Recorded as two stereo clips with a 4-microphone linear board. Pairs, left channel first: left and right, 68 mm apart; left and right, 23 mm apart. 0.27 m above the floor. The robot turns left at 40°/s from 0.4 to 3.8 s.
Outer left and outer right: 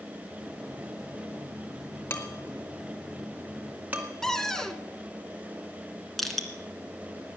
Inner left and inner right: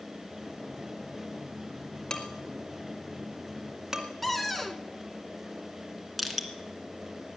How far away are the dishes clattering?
About 2 m.